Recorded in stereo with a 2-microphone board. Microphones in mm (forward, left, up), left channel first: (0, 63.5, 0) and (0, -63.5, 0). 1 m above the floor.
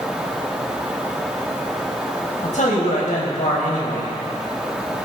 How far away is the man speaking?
About 4.5 m.